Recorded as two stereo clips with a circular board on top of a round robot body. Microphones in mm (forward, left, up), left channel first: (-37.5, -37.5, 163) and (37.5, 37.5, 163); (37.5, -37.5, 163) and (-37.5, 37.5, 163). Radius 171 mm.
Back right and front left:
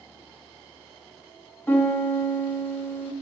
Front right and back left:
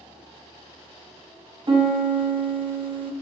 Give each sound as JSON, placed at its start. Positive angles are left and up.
{"t": 1.7, "sound": "a piano", "azimuth_deg": 155, "distance_m": 0.9}